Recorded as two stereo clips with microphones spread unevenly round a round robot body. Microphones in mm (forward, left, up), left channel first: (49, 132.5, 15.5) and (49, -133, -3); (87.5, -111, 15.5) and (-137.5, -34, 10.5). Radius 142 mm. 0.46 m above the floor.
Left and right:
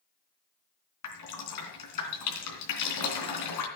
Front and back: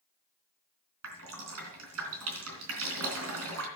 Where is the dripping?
115° left, 3 m.